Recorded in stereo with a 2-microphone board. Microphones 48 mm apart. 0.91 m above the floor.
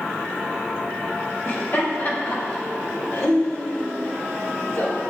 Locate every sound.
1.4 s laughter: 55° left (ahead or behind), 5 m